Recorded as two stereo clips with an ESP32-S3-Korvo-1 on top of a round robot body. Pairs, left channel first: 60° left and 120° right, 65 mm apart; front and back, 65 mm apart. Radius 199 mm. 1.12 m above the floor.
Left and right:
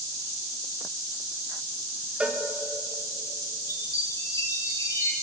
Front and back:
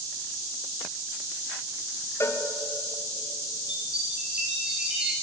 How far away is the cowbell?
About 2.5 m.